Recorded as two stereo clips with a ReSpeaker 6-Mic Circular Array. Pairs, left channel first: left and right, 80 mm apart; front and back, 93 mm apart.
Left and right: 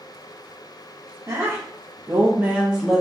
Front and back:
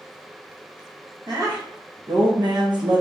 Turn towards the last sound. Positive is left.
turn(degrees=175)